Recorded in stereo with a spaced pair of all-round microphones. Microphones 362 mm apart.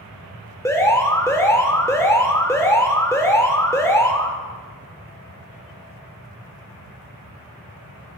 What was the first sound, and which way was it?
An alarm, 10° left (ahead or behind).